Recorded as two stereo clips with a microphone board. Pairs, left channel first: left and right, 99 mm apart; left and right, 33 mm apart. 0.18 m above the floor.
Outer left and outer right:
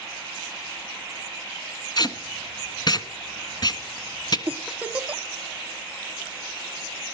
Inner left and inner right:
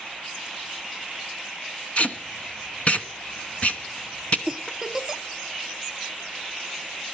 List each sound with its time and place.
2.0 s tape being pulled: 45° left (ahead or behind), 1.3 m
4.5 s a giggle: 15° right (ahead or behind), 0.6 m